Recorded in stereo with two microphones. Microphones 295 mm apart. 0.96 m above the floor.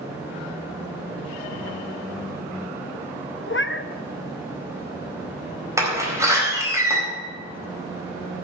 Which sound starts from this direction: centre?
A door slam, at 5.8 s.